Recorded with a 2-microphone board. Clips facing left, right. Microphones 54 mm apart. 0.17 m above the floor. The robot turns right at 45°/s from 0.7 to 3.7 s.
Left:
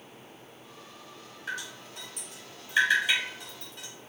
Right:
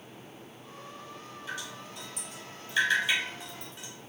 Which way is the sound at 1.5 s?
55° left (ahead or behind).